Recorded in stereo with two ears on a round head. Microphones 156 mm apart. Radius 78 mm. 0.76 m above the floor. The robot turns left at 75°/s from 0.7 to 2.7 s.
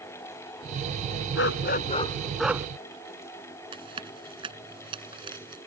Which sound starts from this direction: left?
A dog barking, at 1.4 s.